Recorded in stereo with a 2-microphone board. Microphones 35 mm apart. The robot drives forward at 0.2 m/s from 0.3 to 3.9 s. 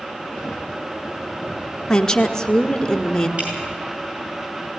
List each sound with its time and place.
1.9 s a woman speaking: 15° left (ahead or behind), 1.1 m
3.4 s dripping: 45° right (ahead or behind), 7.5 m